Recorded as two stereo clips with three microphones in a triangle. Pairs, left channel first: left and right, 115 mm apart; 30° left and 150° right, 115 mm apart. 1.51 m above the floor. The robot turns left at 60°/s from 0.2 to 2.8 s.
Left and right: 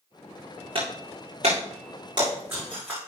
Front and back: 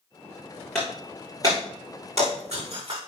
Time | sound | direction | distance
0.8 | breaking glass | 55° right | 6 m